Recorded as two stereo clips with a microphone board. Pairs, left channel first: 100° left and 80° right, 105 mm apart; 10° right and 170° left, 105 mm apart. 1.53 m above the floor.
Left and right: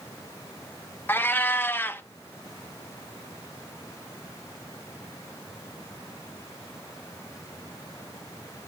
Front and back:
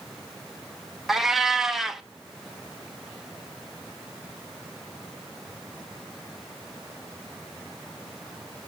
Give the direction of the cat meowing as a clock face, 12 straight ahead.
9 o'clock.